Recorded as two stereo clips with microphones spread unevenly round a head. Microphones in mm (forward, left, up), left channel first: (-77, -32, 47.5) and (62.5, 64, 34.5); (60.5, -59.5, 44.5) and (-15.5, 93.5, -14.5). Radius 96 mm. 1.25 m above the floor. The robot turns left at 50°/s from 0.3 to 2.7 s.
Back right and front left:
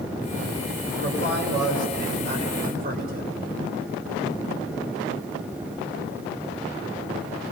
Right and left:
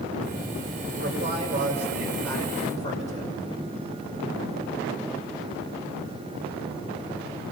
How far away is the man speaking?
About 5.5 m.